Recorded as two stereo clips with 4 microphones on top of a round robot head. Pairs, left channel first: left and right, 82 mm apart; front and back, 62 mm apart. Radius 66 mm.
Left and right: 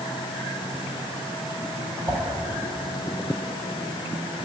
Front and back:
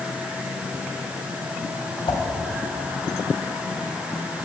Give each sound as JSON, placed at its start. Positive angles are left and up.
{"t": 2.1, "sound": "a whoosh", "azimuth_deg": -25, "distance_m": 0.9}